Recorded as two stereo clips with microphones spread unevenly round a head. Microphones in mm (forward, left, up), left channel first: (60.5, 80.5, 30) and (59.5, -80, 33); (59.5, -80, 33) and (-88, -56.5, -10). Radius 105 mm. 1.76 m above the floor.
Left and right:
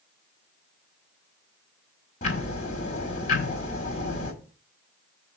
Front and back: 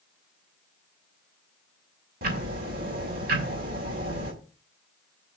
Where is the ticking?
130° left, 1.8 m.